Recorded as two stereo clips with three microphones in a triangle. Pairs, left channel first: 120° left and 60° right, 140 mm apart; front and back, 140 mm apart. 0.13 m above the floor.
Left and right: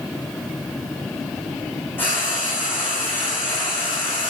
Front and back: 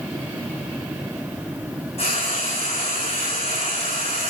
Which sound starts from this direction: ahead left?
Frying, at 2.0 s.